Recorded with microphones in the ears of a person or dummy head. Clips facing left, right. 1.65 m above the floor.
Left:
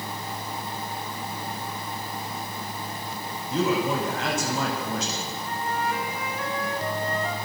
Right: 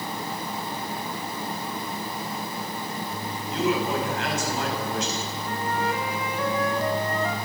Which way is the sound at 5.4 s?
75° right (ahead or behind).